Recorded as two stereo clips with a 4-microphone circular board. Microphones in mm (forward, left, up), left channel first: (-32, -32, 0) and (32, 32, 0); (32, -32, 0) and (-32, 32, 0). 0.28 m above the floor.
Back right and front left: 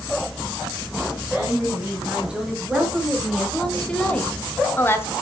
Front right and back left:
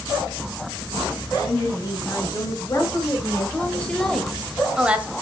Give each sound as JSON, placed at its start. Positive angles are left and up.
{"t": 1.3, "sound": "a woman speaking", "azimuth_deg": -20, "distance_m": 2.5}